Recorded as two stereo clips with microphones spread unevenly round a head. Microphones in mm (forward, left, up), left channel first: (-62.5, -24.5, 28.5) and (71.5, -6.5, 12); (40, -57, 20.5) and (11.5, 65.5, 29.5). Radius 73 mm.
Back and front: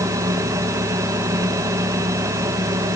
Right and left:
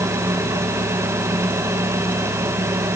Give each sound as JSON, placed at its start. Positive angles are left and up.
{"t": 0.0, "sound": "a fan", "azimuth_deg": 45, "distance_m": 1.6}